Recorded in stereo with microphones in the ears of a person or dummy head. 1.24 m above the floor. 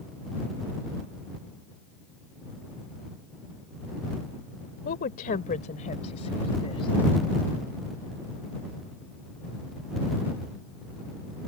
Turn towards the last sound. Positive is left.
turn(degrees=25)  # may be behind; listen again after turning